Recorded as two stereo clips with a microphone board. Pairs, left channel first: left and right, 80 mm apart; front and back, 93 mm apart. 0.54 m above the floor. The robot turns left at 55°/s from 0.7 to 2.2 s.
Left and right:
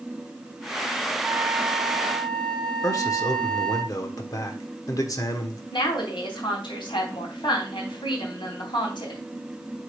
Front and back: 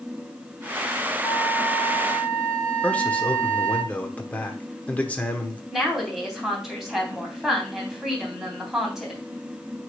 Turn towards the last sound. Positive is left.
turn(degrees=95)